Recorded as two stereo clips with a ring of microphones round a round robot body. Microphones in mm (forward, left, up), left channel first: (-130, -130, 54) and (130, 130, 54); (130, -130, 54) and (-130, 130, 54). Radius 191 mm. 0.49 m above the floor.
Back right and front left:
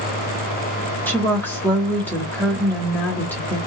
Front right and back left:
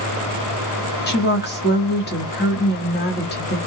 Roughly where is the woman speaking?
Ahead right.